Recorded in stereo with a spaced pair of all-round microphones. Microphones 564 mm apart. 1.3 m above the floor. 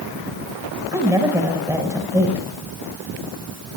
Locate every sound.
0.9 s a woman speaking: 5° right (ahead or behind), 5.5 m